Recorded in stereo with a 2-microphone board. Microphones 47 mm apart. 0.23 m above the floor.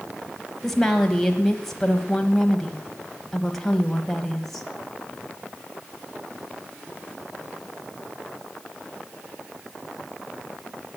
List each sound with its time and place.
0.6 s a woman speaking: 10° left (ahead or behind), 1.0 m